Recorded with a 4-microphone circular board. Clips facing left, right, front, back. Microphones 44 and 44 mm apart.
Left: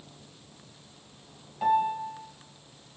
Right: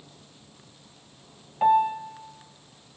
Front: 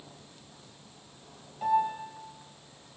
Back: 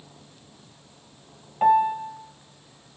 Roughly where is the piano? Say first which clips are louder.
Right 4 dB, back 8 dB; behind right.